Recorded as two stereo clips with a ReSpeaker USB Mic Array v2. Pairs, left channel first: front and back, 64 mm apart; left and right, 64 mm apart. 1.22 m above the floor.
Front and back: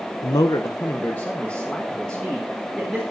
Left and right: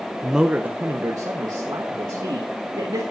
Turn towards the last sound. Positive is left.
turn(degrees=-85)